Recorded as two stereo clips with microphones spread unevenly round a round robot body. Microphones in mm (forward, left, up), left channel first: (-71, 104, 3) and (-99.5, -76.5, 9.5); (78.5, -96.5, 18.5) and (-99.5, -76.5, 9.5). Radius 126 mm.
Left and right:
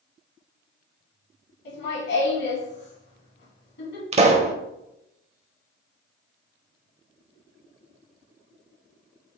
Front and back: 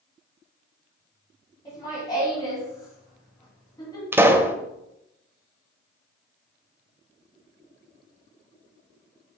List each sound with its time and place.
1.6 s laughter: 65° left, 3 m
4.1 s a pop: 120° right, 1.0 m